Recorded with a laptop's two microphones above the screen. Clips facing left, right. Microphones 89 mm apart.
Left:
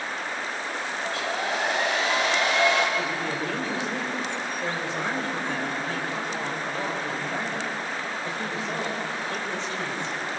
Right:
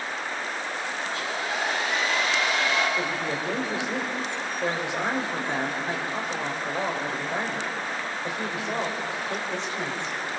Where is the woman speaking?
20° right (ahead or behind), 4 m.